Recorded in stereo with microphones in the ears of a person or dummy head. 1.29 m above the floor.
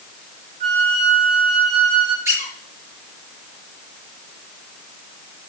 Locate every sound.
0.6 s a flute: 35° right (ahead or behind), 3 m
2.2 s a squeak: 15° right (ahead or behind), 5 m